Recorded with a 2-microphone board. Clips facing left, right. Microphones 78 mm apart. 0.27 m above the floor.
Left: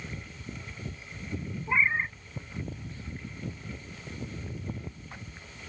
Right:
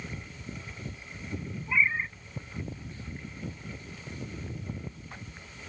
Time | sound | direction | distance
1.7 | a cat meowing | 30° left (ahead or behind) | ?